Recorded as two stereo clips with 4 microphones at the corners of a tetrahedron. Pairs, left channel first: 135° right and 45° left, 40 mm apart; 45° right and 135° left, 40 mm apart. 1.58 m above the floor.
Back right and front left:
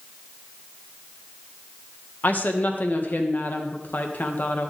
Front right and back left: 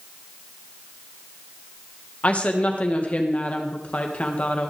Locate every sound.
2.2 s a woman speaking: 95° right, 1.6 m